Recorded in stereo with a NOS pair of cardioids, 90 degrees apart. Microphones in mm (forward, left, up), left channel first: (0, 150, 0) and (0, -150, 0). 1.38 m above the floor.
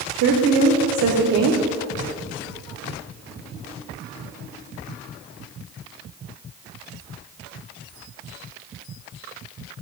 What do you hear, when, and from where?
0.1 s a woman speaking: 65° right, 0.6 m